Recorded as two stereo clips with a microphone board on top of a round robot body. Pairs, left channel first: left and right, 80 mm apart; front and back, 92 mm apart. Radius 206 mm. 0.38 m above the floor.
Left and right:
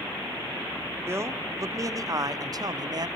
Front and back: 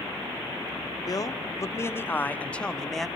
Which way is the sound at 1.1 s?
40° right.